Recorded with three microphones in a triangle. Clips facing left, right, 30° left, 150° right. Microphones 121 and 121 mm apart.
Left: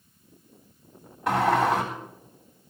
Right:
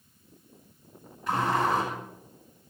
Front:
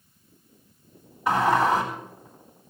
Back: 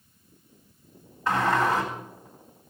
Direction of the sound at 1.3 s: 105° left.